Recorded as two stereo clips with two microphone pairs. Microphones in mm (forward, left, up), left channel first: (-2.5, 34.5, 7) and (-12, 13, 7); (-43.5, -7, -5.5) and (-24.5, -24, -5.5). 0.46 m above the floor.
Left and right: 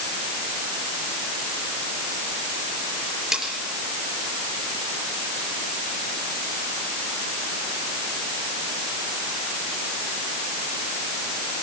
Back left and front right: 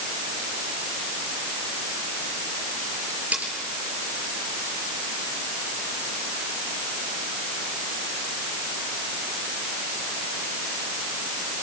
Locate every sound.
3.3 s cutlery clinking: 35° right, 5 m